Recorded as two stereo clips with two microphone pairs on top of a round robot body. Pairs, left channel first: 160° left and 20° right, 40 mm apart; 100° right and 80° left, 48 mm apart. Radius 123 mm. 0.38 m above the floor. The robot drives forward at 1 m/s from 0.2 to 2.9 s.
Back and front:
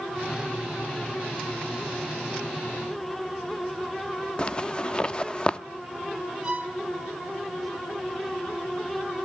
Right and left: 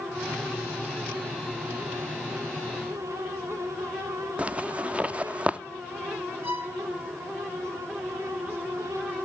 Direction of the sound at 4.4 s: 125° left.